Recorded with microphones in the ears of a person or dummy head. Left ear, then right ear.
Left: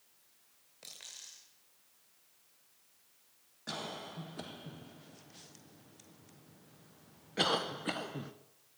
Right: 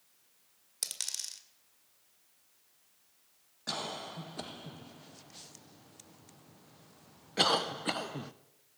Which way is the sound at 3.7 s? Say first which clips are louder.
Right 4 dB; 15° right (ahead or behind).